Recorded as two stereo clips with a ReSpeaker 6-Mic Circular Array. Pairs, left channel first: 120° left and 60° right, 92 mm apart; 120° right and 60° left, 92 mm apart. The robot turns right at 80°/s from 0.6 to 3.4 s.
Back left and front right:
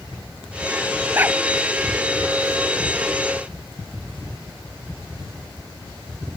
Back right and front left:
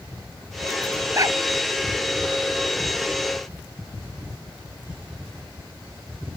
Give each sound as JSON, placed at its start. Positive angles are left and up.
{"t": 1.1, "sound": "a dog barking", "azimuth_deg": 5}